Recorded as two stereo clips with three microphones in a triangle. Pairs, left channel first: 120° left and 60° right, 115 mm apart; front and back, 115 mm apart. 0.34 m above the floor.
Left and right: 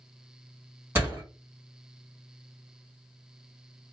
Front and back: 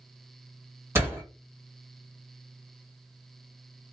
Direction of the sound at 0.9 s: 120° right.